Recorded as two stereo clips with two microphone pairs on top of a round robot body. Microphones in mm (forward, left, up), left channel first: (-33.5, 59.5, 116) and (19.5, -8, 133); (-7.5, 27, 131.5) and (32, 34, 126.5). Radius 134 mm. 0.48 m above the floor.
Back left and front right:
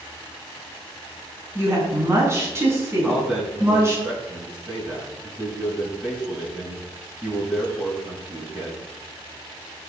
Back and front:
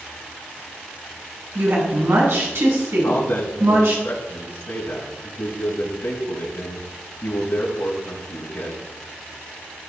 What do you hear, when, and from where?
1.6 s a woman speaking: 10° left, 6 m
3.0 s a man speaking: 135° right, 5 m